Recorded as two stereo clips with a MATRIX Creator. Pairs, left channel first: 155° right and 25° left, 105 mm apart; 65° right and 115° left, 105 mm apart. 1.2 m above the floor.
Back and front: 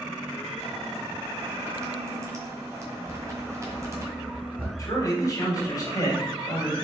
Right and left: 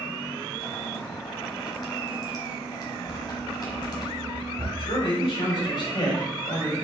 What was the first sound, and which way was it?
Boiling, 30° right.